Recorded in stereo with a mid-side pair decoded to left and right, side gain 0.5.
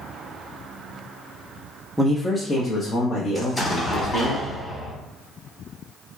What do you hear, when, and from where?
2.0 s a man speaking: 10° right, 0.6 m; by 4.3 s 75° left, 1.6 m
3.4 s an explosion: 25° left, 1.3 m